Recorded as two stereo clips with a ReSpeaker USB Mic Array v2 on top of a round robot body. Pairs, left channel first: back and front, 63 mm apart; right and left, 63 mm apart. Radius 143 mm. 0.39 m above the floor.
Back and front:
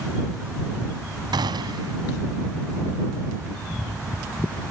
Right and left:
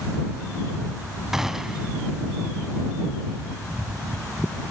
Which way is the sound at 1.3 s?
5° left.